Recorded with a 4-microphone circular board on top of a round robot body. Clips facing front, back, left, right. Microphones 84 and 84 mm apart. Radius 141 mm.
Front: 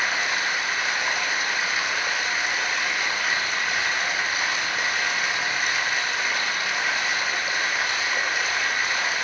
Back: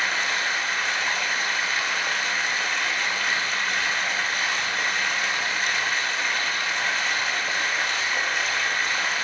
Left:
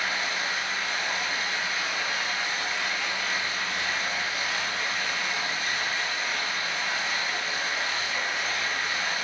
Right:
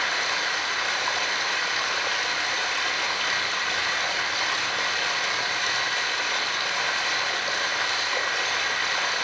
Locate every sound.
0.0 s running water: 85° right, 1.2 m